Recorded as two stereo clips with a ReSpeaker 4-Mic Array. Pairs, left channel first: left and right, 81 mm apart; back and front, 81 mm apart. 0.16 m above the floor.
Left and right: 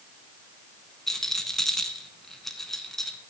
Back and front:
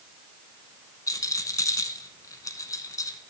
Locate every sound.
1.1 s a rattle: 175° left, 0.9 m